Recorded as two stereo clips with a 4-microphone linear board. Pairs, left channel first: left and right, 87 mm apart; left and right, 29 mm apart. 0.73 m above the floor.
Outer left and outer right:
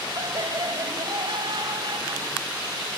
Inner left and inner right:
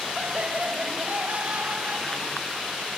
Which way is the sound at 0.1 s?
65° right (ahead or behind).